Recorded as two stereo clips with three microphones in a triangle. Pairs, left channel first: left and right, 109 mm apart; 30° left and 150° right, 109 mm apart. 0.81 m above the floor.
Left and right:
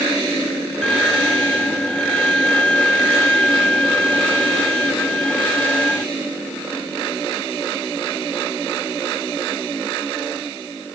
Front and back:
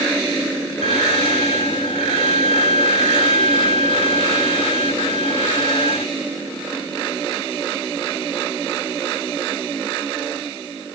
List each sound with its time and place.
0.8 s a violin: 10° left